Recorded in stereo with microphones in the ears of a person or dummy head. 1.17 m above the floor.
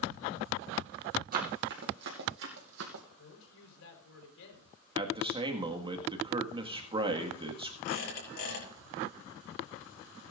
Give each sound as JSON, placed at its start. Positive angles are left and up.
{"t": 1.3, "sound": "running footsteps", "side_deg": -45, "distance_m": 2.5}
{"t": 3.2, "sound": "a woman speaking", "side_deg": 75, "distance_m": 4.0}
{"t": 5.0, "sound": "a man speaking", "side_deg": -25, "distance_m": 1.7}
{"t": 7.8, "sound": "a squeak", "side_deg": 60, "distance_m": 5.5}